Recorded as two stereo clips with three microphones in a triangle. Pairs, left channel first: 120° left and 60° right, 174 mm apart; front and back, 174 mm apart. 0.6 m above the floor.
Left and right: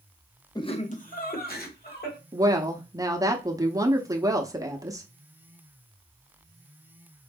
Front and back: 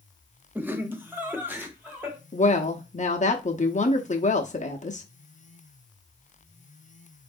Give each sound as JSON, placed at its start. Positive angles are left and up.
{"t": 0.6, "sound": "laughter", "azimuth_deg": 120, "distance_m": 0.6}
{"t": 2.3, "sound": "a woman speaking", "azimuth_deg": 0, "distance_m": 0.8}